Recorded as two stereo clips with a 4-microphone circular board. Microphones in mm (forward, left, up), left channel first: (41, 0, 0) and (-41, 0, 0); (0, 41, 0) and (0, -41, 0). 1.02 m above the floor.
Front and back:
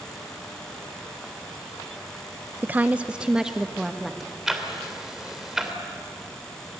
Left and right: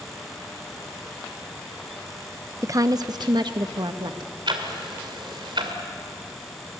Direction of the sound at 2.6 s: 125° right.